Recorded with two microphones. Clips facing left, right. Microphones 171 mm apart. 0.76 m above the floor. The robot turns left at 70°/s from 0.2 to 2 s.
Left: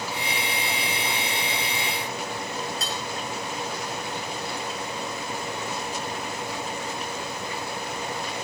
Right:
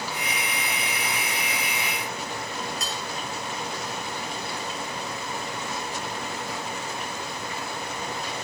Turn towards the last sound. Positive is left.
turn(degrees=30)  # may be behind; listen again after turning